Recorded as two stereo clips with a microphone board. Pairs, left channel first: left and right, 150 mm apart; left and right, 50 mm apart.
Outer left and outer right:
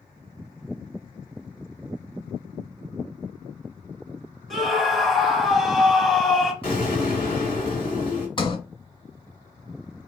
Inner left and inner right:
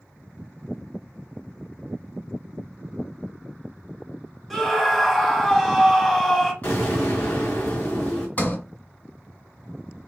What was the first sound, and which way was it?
A scream, centre (ahead or behind).